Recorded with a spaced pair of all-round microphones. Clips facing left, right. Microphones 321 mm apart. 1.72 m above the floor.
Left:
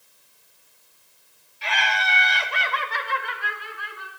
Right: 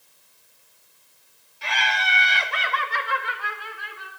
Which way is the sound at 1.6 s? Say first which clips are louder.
Left 1 dB; 55° right (ahead or behind).